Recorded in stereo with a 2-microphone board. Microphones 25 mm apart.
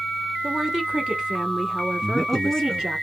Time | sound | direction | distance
0.4 | a woman speaking | 15° right (ahead or behind) | 1.0 m
2.0 | a man speaking | centre (ahead or behind) | 2.5 m